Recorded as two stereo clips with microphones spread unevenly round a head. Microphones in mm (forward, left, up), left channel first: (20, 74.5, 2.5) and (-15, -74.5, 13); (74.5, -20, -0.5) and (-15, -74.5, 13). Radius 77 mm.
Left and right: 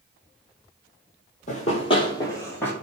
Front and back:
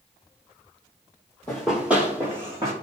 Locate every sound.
1.5 s running footsteps: 115° left, 1.7 m; by 2.7 s 155° left, 2.5 m